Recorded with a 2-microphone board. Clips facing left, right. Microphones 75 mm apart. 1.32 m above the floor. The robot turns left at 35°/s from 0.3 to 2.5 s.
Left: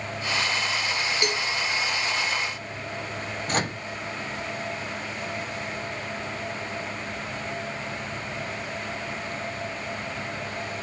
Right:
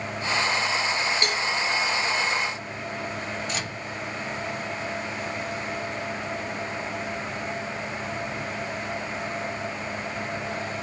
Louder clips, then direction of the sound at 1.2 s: Even; 20° left (ahead or behind).